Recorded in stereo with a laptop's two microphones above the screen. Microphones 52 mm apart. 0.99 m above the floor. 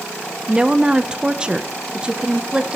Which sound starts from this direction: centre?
A woman speaking, at 0.5 s.